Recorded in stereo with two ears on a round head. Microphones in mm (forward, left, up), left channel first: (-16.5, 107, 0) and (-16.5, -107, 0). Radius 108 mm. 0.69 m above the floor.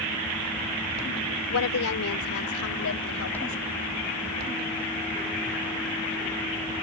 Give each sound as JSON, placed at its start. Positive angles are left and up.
{"t": 1.5, "sound": "a woman speaking", "side_deg": 65}